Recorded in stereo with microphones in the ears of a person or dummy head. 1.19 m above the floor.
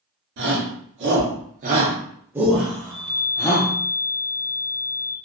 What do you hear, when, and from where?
0.4 s a shout: 65° right (ahead or behind), 1.1 m; by 3.7 s 20° left (ahead or behind), 1.3 m
2.8 s a chime: 35° right (ahead or behind), 1.2 m